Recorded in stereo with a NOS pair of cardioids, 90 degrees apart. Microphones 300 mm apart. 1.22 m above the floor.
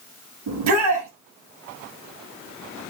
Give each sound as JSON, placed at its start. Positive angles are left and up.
{"t": 0.5, "sound": "a shout", "azimuth_deg": -65, "distance_m": 8.5}